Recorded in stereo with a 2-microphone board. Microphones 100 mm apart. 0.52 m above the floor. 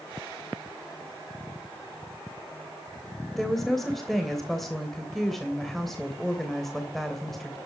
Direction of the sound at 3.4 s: 5° left (ahead or behind).